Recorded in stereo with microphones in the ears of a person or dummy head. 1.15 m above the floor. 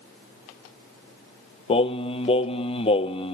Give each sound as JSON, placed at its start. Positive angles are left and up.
{"t": 1.7, "sound": "singing", "side_deg": 30, "distance_m": 0.6}